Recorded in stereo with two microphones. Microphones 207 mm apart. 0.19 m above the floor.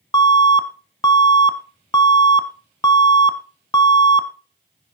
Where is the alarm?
20° left (ahead or behind), 1.0 m.